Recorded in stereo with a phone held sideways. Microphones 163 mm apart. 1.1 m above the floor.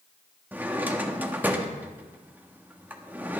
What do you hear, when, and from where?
0.5 s a drawer: 10° right (ahead or behind), 1.1 m